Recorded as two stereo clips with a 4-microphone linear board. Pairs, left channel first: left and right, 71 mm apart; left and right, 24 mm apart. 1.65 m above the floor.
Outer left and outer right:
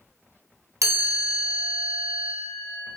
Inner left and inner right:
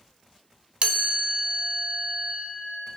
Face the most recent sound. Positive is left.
turn(degrees=-50)  # may be behind; listen again after turning